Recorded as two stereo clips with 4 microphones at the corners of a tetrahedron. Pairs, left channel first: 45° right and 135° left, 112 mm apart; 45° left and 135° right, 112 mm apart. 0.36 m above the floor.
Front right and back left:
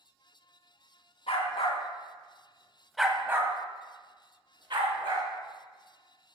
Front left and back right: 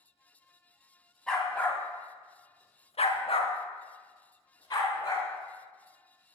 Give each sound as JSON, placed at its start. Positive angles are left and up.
{"t": 1.3, "sound": "a dog barking", "azimuth_deg": -40, "distance_m": 1.3}